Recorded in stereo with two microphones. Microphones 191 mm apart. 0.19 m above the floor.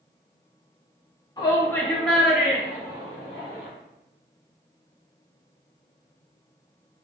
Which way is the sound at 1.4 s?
20° left (ahead or behind).